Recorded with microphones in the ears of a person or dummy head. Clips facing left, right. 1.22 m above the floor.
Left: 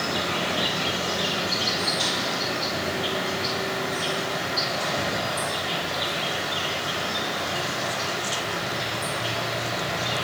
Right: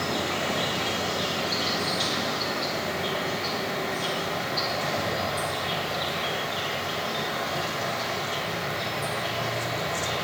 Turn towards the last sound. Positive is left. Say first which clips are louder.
# even
turn(degrees=5)  # may be behind; listen again after turning